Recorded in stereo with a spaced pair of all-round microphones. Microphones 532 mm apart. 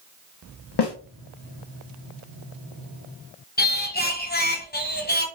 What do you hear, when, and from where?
0.8 s a snare drum: 50° left (ahead or behind), 0.7 m
3.6 s singing: 20° left (ahead or behind), 0.7 m